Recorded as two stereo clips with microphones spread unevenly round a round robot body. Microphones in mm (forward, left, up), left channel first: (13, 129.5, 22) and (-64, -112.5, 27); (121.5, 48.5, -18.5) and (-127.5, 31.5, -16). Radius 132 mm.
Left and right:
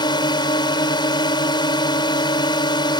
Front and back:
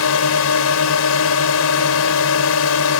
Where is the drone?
Straight ahead.